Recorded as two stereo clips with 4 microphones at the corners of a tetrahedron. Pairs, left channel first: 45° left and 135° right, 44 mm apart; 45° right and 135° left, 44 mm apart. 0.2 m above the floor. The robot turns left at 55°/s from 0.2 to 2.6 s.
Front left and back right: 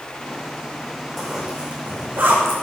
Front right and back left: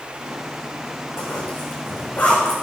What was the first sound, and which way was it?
A zipper, 40° right.